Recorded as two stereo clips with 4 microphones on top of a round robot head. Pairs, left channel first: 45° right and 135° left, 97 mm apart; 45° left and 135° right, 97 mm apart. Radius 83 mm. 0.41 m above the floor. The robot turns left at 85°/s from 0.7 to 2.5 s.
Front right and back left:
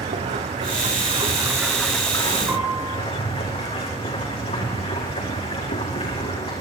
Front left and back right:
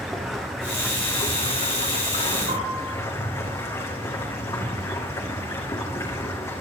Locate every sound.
0.0 s running water: 135° left, 6.5 m; by 6.6 s 20° right, 6.5 m
2.5 s a piano: 145° right, 10 m; by 2.9 s 150° right, 10 m